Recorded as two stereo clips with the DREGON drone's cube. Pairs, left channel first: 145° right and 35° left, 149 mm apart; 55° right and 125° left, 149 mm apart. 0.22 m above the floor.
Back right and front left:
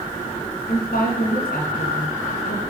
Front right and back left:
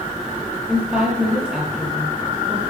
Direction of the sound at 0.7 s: 150° right.